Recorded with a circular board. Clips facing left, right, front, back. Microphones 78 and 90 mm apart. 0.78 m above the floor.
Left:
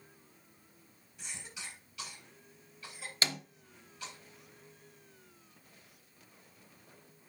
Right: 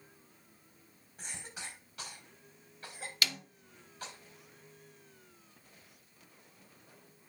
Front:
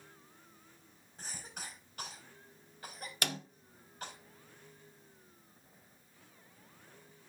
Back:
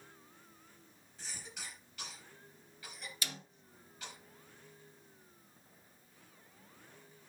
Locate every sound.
1.2 s a cough: 40° right, 4.5 m
3.2 s a snare drum: 30° left, 0.7 m